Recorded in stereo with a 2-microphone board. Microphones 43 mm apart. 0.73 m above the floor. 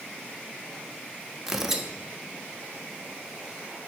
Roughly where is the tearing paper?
Centre.